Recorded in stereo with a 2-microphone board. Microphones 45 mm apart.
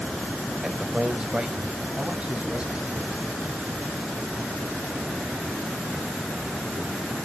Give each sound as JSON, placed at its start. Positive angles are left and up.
{"t": 0.6, "sound": "a man speaking", "side_deg": -10, "distance_m": 0.9}